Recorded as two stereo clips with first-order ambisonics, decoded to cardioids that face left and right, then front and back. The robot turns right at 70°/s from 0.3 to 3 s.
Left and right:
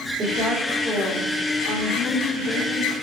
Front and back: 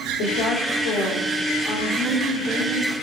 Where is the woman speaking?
25° right, 3 m; by 2.9 s 160° left, 3 m.